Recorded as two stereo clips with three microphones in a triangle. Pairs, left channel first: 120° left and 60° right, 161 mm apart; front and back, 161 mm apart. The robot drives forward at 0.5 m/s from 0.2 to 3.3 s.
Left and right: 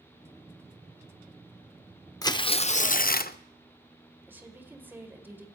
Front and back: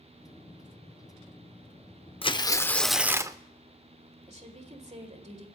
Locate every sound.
2.2 s tearing paper: 50° left, 0.6 m; by 3.4 s 115° left, 0.5 m
4.3 s a woman speaking: 135° right, 2 m